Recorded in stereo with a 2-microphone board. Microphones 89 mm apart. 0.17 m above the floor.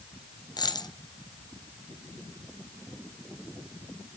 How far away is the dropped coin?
About 0.9 m.